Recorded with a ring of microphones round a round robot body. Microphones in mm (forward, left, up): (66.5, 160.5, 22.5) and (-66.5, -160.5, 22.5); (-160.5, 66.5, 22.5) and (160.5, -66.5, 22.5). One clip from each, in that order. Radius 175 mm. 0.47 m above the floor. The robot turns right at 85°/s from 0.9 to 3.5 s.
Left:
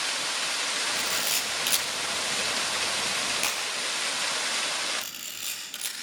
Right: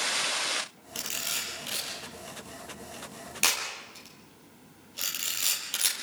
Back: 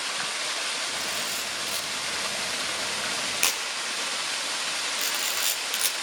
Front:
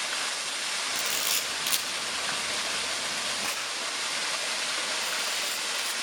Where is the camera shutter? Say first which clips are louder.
Left 6 dB, front 1 dB; 40° right, 6.5 m; by 5.9 s 175° left, 6.5 m.